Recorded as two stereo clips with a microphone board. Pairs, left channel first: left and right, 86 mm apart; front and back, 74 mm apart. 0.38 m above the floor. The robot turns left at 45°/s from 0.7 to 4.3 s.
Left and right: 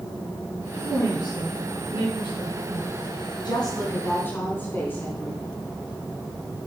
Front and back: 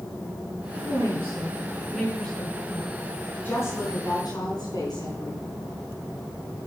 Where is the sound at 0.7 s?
145° left, 4.5 m; by 3.1 s 40° left, 4.5 m.